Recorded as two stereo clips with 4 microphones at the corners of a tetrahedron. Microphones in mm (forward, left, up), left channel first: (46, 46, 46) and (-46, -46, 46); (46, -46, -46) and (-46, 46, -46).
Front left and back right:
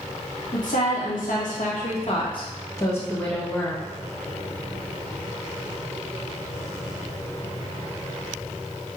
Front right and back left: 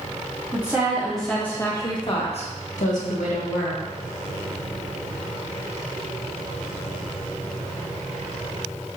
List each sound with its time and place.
0.5 s a woman speaking: 60° left, 1.5 m; by 3.8 s 40° right, 1.9 m